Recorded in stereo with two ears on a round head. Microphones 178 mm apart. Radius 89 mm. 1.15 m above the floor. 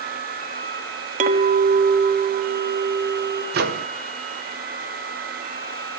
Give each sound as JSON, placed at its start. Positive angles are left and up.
{"t": 1.2, "sound": "a clink", "side_deg": -40, "distance_m": 1.2}
{"t": 3.5, "sound": "a microwave", "side_deg": -50, "distance_m": 1.1}